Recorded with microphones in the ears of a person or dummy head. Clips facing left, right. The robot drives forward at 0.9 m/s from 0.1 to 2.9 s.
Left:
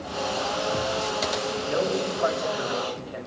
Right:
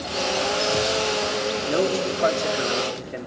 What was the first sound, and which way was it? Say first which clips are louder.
A man speaking: right 3 dB; 45° right (ahead or behind).